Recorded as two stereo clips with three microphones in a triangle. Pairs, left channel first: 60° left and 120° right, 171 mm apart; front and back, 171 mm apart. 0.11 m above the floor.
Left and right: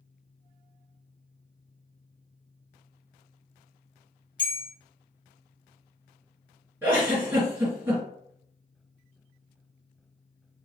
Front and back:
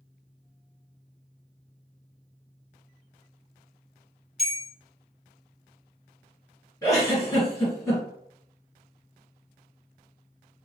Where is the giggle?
55° right, 1.8 m.